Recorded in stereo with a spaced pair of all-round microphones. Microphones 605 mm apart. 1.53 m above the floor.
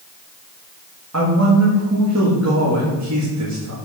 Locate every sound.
1.1 s a man speaking: 25° right (ahead or behind), 2.0 m